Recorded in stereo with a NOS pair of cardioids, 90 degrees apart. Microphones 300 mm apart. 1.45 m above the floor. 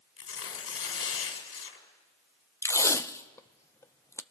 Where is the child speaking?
No child speaking in this recording.